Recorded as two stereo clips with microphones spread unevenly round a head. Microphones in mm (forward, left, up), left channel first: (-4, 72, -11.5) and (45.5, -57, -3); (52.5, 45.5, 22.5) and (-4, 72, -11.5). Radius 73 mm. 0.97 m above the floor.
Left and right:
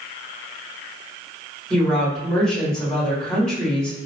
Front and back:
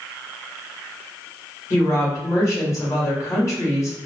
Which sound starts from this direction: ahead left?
A woman speaking, at 1.7 s.